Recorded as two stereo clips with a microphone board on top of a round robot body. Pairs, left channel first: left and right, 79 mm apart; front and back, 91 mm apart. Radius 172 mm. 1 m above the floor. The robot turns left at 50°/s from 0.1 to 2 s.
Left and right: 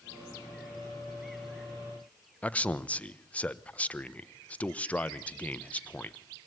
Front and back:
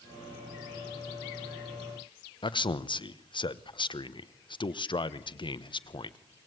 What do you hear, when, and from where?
2.4 s a man speaking: 20° left, 1.2 m